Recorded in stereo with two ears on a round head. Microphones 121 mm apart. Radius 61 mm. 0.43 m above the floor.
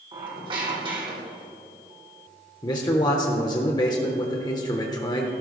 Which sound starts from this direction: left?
A man speaking, at 2.6 s.